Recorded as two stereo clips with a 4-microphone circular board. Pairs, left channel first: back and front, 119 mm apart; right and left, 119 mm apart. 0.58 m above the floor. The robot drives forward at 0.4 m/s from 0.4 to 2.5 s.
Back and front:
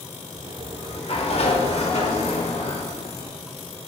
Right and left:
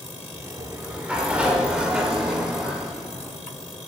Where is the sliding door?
170° left, 1.7 m.